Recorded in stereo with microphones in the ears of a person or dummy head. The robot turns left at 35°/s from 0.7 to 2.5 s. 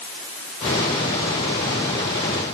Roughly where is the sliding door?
I don't hear a sliding door.